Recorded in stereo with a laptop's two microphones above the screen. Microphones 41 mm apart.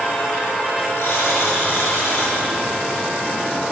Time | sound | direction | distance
1.0 | a buzzer | 80° left | 6.5 m